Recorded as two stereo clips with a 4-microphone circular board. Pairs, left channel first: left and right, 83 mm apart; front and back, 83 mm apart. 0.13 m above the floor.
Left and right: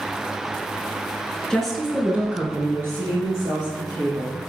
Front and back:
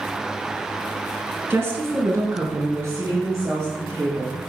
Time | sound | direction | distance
1.5 | a woman speaking | 165° left | 1.2 m